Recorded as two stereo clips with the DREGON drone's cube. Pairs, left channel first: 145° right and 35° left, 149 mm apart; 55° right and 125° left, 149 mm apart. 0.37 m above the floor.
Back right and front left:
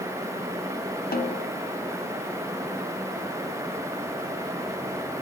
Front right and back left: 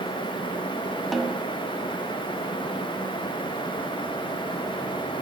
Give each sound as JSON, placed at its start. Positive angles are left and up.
{"t": 1.1, "sound": "a snare drum", "azimuth_deg": -145, "distance_m": 0.8}